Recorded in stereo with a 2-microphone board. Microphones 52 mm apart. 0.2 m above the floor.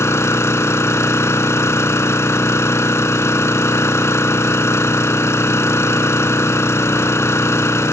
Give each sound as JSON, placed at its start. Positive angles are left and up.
{"t": 0.0, "sound": "an engine running", "side_deg": 65, "distance_m": 0.7}